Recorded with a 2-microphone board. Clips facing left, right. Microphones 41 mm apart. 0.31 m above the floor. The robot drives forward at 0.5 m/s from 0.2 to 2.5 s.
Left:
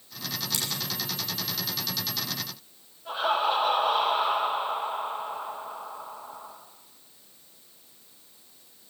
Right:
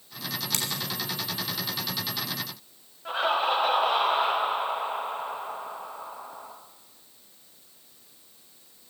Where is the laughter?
75° right (ahead or behind), 5 m.